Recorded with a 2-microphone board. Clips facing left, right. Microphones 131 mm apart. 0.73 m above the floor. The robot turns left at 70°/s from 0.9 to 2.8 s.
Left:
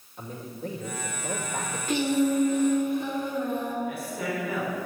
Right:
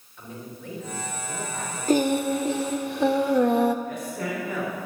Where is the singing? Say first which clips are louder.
Right 2 dB; 40° right, 0.8 m; by 3.8 s 105° right, 0.8 m.